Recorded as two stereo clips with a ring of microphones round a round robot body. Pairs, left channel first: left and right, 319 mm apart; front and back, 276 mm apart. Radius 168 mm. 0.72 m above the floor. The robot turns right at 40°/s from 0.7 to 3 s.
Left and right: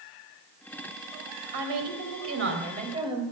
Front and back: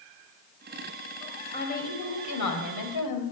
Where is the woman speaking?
75° right, 3 m; by 3.2 s 15° right, 3 m.